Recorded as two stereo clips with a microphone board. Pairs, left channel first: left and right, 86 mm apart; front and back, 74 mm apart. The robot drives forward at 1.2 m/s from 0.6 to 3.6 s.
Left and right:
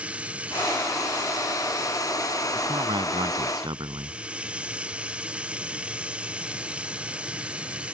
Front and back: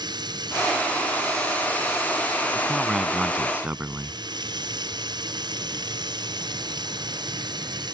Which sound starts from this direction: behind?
Running water, at 0.0 s.